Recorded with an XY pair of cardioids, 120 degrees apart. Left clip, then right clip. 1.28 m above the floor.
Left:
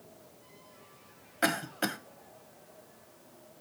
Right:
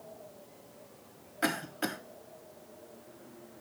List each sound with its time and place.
1.4 s a cough: 20° left, 0.7 m